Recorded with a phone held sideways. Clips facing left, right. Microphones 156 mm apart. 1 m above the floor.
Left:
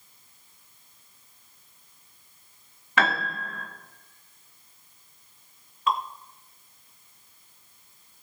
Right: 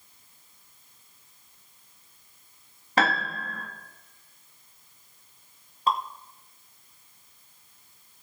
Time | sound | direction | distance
3.0 | a piano | 40° right (ahead or behind) | 2 m
5.9 | dripping | 35° right (ahead or behind) | 1.0 m